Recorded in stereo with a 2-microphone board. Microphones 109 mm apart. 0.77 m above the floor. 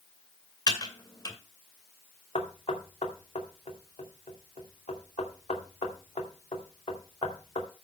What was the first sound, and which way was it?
Typing on a keyboard, 35° left (ahead or behind).